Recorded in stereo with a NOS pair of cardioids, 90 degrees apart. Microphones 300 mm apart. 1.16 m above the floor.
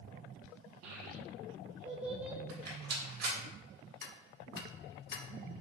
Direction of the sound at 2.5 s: 60° right.